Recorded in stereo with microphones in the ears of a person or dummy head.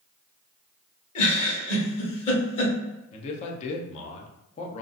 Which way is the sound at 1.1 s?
40° left (ahead or behind).